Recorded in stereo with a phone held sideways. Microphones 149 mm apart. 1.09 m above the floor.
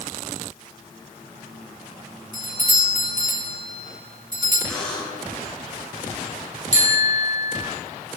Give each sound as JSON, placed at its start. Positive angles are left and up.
{"t": 2.3, "sound": "a doorbell", "side_deg": -70, "distance_m": 4.0}
{"t": 4.7, "sound": "a buzzer", "side_deg": 5, "distance_m": 6.0}
{"t": 6.7, "sound": "a bicycle bell", "side_deg": 50, "distance_m": 4.0}